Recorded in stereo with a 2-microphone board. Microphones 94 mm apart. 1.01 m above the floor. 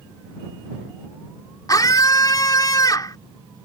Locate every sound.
1.7 s a scream: 40° left (ahead or behind)